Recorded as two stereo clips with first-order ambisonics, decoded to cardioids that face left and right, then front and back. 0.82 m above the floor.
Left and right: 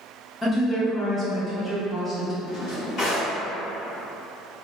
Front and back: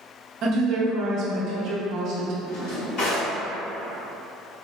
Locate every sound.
0.4 s a woman speaking: 170° left, 0.6 m
2.5 s a drawer: 40° left, 1.9 m